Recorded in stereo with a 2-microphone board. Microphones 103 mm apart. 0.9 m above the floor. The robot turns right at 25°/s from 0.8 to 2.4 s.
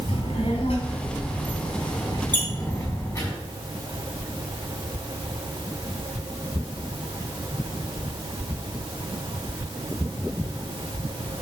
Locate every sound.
0.1 s a child speaking: 110° left, 3.5 m; by 3.3 s 150° left, 3.5 m
2.3 s a squeak: 20° left (ahead or behind), 2.0 m